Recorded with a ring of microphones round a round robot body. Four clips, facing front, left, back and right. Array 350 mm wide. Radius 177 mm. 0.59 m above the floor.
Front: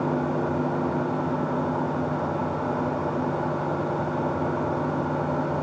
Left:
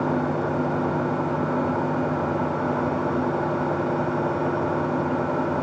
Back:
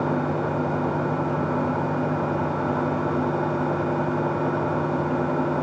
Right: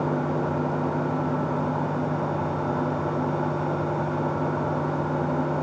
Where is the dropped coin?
I don't hear a dropped coin.